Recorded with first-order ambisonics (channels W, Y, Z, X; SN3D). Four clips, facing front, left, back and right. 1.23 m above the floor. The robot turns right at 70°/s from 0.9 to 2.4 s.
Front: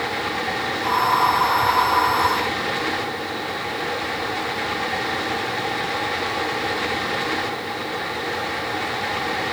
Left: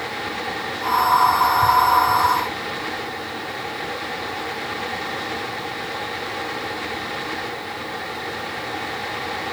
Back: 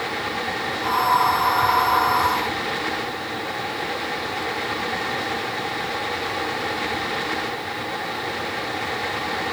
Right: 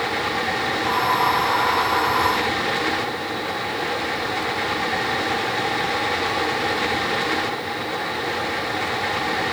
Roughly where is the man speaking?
I don't hear a man speaking.